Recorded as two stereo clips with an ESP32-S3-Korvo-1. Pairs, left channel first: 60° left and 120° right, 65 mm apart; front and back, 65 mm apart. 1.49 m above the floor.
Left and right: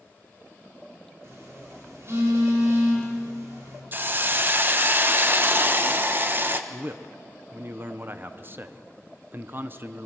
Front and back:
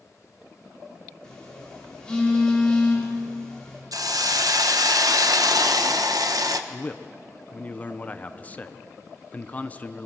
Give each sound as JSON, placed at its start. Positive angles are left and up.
{"t": 1.2, "sound": "a phone buzzing", "azimuth_deg": -75, "distance_m": 5.0}
{"t": 3.9, "sound": "a hiss", "azimuth_deg": -175, "distance_m": 1.0}
{"t": 6.7, "sound": "a man speaking", "azimuth_deg": -65, "distance_m": 0.8}